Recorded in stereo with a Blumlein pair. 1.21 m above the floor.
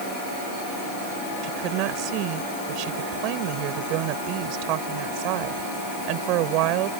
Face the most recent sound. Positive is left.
turn(degrees=-40)